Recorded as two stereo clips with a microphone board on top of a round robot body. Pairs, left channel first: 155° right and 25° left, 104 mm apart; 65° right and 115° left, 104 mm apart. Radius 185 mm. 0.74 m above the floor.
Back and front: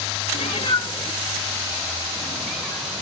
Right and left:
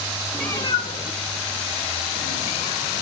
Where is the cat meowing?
155° right, 0.6 m; by 3.0 s 60° right, 3 m.